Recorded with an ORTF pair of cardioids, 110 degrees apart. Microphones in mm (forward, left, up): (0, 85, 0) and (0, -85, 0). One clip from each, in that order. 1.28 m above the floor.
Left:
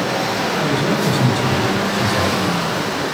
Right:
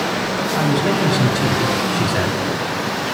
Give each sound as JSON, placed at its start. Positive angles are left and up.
{"t": 0.5, "sound": "a man speaking", "azimuth_deg": -30, "distance_m": 8.0}